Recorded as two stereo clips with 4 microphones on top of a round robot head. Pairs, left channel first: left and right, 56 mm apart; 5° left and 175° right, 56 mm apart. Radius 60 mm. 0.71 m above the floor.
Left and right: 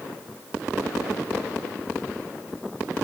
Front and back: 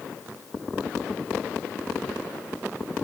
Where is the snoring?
No snoring in this recording.